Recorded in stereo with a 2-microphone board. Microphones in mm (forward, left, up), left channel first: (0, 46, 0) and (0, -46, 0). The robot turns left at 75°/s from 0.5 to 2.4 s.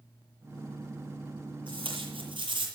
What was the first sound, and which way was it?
Tape being pulled, 65° right.